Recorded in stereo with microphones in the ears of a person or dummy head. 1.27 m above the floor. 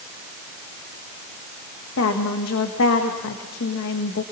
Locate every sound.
2.0 s a woman speaking: 75° left (ahead or behind), 1.6 m